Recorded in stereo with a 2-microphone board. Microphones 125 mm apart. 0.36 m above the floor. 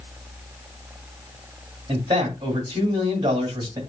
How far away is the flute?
I don't hear a flute.